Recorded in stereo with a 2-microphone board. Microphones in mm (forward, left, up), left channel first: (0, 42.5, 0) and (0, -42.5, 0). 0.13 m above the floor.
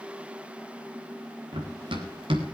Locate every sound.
1.5 s running footsteps: 75° right (ahead or behind), 3.5 m; by 2.5 s 85° right, 3.5 m